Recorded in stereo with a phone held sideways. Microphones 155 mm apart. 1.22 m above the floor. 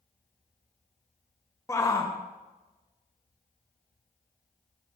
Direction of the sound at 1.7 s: 20° left (ahead or behind).